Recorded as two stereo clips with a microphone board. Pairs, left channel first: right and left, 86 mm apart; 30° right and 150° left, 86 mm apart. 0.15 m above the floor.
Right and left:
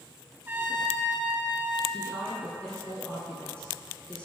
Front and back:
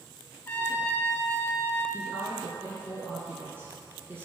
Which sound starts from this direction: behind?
A woman speaking, at 1.9 s.